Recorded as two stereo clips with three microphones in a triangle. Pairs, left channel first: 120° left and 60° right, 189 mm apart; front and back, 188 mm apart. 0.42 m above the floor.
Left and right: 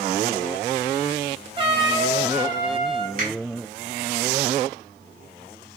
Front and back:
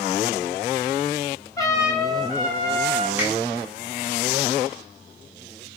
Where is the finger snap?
40° right, 1.8 m.